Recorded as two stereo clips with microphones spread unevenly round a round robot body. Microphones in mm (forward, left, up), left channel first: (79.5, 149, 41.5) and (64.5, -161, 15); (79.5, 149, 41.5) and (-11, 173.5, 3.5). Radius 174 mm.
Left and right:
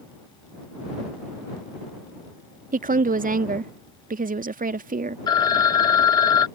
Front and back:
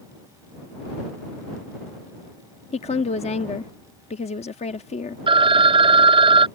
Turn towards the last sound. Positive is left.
turn(degrees=170)